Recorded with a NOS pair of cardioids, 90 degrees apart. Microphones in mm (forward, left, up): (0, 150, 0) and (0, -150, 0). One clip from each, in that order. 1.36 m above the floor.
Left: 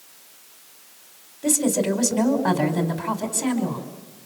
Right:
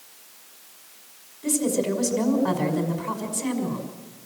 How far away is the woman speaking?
About 5.5 m.